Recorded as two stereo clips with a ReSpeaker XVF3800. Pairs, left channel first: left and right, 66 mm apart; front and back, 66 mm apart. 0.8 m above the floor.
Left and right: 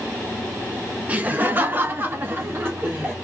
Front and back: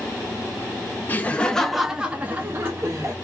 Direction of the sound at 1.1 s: 40° right.